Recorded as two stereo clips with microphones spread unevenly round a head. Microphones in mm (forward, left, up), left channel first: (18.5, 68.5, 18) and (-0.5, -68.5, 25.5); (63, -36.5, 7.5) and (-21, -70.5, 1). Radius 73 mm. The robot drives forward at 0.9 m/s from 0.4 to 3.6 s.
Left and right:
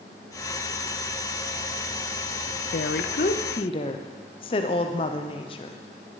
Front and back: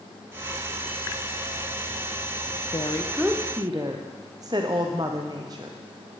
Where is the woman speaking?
70° left, 0.7 m; by 5.8 s 135° left, 0.9 m.